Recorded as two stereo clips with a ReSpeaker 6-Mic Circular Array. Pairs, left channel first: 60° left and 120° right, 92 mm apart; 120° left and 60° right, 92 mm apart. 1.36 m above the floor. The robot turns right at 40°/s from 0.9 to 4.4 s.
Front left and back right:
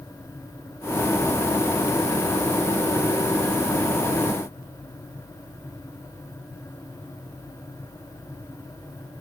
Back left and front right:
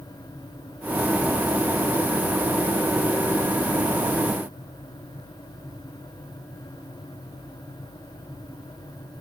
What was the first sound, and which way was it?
Only background noise.